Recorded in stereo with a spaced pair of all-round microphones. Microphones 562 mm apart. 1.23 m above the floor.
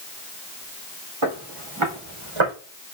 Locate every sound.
1.2 s footsteps: 65° right (ahead or behind), 3 m; by 2.5 s 55° right (ahead or behind), 3 m